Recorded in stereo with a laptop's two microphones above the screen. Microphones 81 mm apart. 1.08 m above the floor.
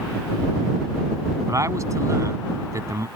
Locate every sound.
1.5 s a man speaking: 40° right (ahead or behind)